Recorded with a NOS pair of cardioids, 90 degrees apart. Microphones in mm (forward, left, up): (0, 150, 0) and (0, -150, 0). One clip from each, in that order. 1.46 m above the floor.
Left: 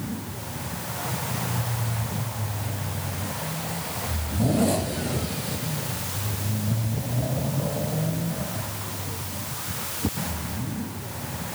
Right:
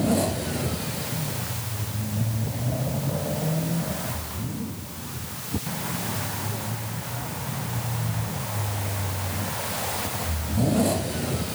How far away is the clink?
I don't hear a clink.